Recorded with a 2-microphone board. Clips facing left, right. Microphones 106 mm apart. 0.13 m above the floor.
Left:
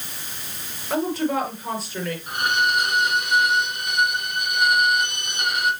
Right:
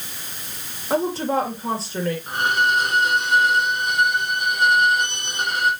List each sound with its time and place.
0.9 s a woman speaking: 30° right (ahead or behind), 3 m
2.3 s a violin: 35° right (ahead or behind), 2 m